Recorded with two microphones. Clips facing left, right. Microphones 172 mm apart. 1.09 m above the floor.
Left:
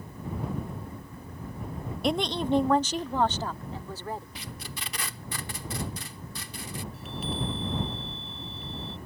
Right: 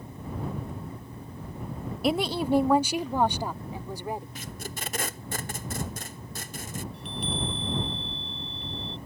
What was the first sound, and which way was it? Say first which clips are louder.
A woman speaking: right 1 dB; 5° right (ahead or behind).